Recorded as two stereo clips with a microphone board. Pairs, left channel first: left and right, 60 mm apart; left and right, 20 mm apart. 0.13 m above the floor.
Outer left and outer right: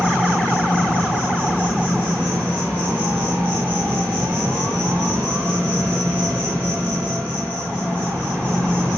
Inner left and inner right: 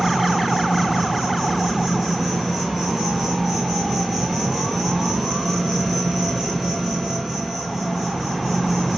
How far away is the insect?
About 2.5 m.